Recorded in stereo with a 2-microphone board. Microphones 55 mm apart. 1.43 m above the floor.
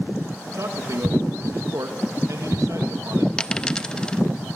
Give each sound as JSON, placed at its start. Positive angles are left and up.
{"t": 0.5, "sound": "a man speaking", "side_deg": -75, "distance_m": 2.5}
{"t": 3.4, "sound": "a dropped coin", "side_deg": 15, "distance_m": 0.7}